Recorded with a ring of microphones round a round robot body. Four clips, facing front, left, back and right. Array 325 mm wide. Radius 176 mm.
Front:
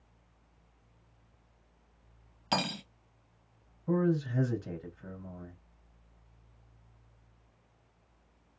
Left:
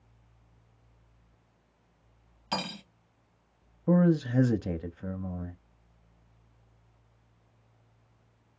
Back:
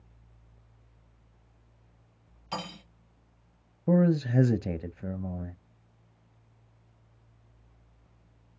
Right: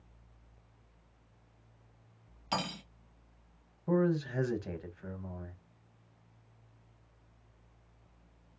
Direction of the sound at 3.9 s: 145° left.